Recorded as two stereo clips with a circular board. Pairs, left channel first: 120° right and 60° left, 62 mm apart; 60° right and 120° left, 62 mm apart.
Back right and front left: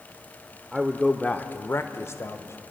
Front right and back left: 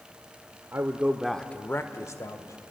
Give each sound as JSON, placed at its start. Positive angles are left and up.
{"t": 0.7, "sound": "a man speaking", "azimuth_deg": 145, "distance_m": 1.0}